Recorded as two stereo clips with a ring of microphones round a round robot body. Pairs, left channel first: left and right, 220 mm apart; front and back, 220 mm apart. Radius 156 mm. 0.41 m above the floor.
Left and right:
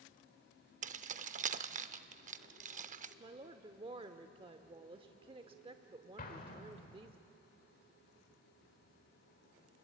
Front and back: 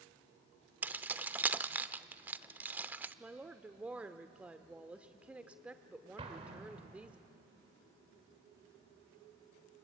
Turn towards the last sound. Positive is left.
turn(degrees=125)